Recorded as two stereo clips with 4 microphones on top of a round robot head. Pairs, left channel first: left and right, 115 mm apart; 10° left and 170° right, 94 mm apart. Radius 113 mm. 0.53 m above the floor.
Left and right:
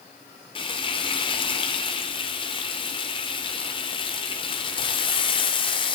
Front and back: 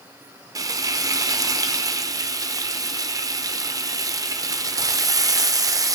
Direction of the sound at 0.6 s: 135° left.